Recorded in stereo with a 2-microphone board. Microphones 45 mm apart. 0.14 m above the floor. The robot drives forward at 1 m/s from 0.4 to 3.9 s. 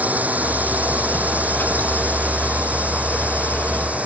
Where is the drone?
35° right (ahead or behind).